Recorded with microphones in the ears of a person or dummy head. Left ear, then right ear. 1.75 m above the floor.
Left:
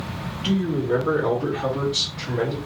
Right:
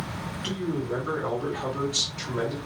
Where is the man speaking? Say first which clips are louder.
Left 7 dB; 15° left (ahead or behind), 1.5 m; by 2.6 s 50° right (ahead or behind), 1.1 m.